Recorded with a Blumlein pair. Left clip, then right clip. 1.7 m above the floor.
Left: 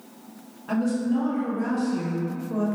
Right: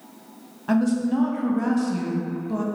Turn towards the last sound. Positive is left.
turn(degrees=-70)